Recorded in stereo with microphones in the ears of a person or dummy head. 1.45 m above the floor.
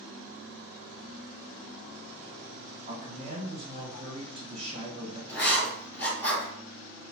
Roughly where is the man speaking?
Right.